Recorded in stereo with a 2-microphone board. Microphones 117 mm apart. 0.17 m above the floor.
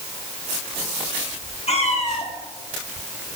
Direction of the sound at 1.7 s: 60° left (ahead or behind).